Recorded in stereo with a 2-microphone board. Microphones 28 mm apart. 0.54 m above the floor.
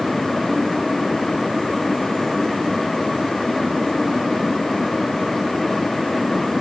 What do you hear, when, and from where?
Only background noise.